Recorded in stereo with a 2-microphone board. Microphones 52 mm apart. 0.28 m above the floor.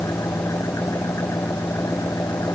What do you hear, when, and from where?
0.0 s an engine running: 75° left (ahead or behind)